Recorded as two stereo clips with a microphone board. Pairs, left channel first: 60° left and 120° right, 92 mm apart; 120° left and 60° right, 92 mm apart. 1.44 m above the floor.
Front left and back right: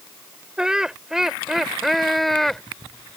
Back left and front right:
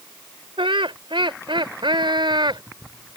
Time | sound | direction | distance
0.6 | laughter | 40° right | ?